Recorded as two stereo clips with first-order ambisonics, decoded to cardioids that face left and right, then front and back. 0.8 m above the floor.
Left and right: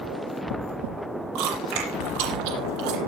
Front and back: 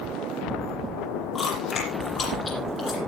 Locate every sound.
1.4 s chewing: 70° right, 8 m